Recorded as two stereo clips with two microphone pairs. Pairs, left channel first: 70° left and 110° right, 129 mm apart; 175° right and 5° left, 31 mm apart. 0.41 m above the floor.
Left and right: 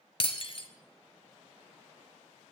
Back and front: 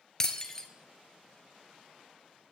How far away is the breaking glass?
About 1.2 m.